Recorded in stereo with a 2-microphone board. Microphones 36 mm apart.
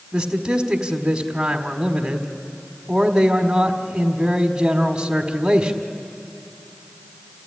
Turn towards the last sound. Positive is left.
turn(degrees=-15)  # may be behind; listen again after turning